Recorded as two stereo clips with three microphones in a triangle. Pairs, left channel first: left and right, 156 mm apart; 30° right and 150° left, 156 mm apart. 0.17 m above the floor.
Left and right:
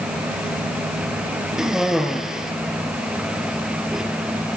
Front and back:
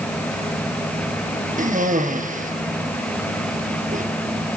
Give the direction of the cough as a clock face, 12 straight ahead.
6 o'clock.